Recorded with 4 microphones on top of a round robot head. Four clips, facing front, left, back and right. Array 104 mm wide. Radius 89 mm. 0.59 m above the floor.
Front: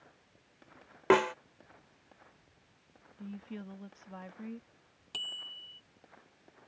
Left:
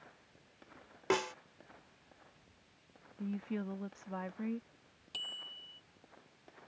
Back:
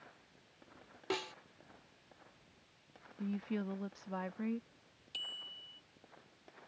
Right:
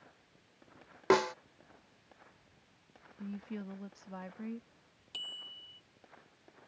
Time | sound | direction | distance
1.1 | a snare drum | 30° right | ?
3.2 | a woman speaking | 150° left | ?
5.1 | a bicycle bell | 5° left | ?